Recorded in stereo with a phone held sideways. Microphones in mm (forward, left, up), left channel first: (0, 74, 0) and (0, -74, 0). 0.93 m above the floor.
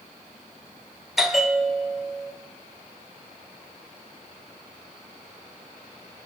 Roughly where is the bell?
Centre.